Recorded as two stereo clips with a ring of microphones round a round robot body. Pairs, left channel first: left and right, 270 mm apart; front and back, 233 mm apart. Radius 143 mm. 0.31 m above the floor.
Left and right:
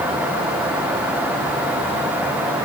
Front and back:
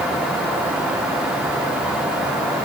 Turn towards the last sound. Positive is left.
No sound to turn to.